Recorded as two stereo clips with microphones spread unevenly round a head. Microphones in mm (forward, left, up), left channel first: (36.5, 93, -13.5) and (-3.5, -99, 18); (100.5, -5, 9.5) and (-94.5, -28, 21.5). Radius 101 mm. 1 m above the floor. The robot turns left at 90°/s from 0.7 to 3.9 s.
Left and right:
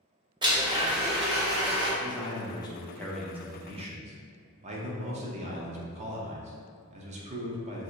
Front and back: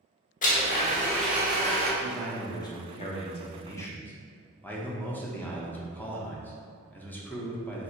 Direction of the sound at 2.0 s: 110° left.